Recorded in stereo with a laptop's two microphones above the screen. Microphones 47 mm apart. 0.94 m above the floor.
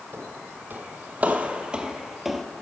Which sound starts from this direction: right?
Footsteps, at 0.1 s.